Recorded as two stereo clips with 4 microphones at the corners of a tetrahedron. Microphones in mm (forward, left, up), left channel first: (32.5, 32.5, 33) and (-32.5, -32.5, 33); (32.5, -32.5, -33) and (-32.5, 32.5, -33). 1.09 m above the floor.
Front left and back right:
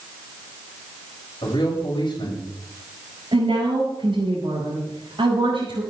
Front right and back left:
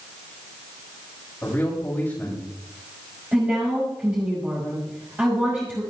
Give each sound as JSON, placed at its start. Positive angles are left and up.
{"t": 1.4, "sound": "a man speaking", "azimuth_deg": 15, "distance_m": 6.5}
{"t": 3.3, "sound": "a woman speaking", "azimuth_deg": -155, "distance_m": 6.0}